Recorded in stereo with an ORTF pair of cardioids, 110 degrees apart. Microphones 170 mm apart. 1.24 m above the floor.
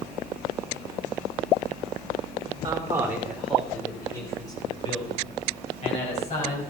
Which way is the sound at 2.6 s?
20° right.